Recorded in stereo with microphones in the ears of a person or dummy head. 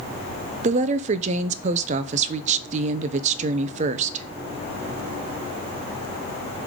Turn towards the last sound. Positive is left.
turn(degrees=-40)  # may be behind; listen again after turning